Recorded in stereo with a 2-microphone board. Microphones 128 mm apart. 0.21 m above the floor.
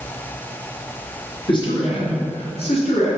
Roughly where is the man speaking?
Left.